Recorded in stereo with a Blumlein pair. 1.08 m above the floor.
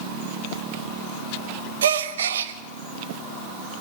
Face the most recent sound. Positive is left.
turn(degrees=-60)